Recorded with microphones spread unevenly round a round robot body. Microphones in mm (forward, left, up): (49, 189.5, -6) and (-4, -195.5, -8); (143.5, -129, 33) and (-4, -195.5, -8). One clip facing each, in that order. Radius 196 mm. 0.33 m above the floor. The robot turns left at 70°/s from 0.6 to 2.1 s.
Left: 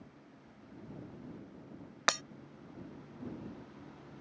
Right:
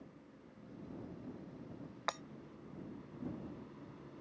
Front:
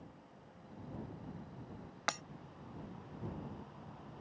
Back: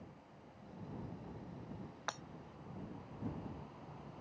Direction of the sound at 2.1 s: 55° left.